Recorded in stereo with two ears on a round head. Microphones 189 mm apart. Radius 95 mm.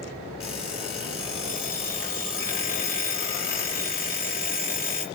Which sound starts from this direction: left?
An alarm clock, at 0.4 s.